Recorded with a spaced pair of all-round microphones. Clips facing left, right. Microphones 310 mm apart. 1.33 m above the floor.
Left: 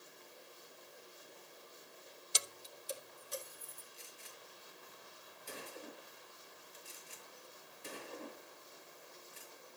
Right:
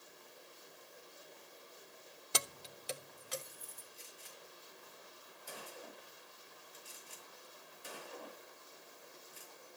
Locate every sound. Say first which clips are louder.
2.3 s keys jangling: right 6 dB; 65° right (ahead or behind), 0.7 m; by 3.8 s 75° right (ahead or behind), 2.5 m
3.9 s a gunshot: even; 30° left (ahead or behind), 6.5 m